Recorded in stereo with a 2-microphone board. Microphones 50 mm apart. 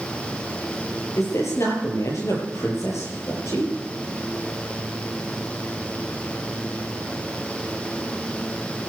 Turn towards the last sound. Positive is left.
turn(degrees=80)